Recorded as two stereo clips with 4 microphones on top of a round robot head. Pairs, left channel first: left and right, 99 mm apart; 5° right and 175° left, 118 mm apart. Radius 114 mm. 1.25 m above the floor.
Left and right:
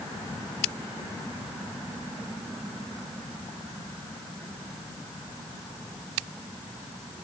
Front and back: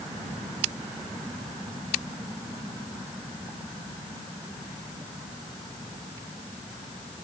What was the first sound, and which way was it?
Only background noise.